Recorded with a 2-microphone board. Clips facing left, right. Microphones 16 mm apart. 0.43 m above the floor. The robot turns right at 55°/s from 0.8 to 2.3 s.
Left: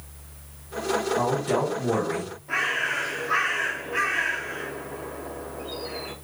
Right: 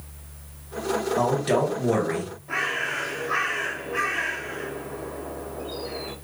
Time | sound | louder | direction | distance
1.2 | a man speaking | right 2 dB | 115° right | 1.9 m
2.5 | a bird | left 2 dB | 20° left (ahead or behind) | 1.0 m